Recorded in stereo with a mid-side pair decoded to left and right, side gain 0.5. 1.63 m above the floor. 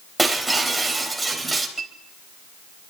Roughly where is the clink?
Ahead right.